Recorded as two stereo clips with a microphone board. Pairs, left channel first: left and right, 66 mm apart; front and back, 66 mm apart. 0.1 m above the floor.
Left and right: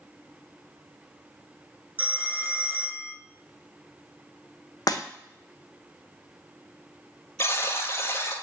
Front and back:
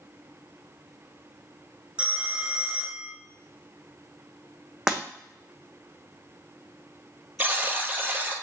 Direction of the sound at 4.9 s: 100° left.